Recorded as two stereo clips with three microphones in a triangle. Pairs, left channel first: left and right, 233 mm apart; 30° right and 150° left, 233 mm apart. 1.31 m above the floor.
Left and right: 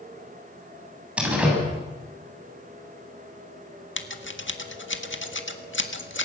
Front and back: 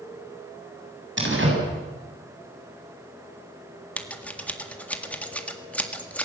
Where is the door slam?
175° right, 8 m.